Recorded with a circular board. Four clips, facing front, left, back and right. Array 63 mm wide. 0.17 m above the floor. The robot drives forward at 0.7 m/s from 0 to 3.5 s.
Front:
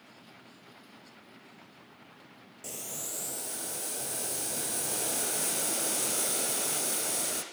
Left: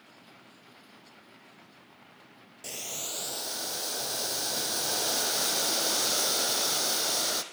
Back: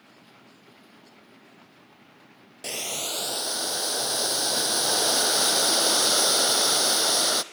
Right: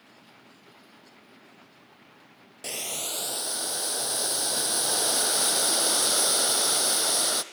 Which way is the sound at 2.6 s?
155° right.